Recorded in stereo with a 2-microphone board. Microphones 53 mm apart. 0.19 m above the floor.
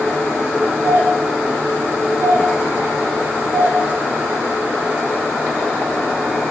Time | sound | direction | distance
0.8 | a doorbell | 60° right (ahead or behind) | 5.5 m